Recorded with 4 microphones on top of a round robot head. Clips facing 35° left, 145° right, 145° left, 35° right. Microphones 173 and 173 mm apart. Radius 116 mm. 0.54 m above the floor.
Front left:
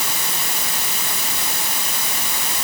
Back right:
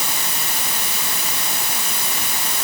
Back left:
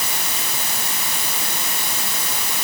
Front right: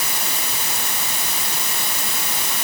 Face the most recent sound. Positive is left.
No sound to turn to.